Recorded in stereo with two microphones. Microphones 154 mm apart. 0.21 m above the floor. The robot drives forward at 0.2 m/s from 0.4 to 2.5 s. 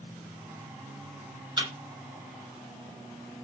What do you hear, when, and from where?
1.6 s a thud: 30° right (ahead or behind), 1.4 m